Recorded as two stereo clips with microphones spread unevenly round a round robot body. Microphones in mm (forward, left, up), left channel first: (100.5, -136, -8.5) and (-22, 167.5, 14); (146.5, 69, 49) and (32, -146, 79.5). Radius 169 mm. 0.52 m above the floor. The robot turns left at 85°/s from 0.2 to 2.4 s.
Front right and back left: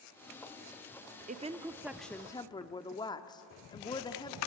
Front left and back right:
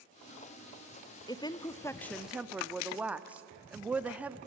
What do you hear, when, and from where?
1.3 s a woman speaking: 70° left, 0.8 m; by 4.4 s 25° right, 0.8 m